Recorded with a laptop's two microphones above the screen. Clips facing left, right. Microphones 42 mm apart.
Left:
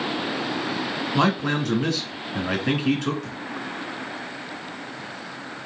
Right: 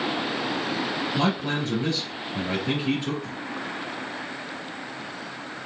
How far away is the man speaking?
About 1.9 m.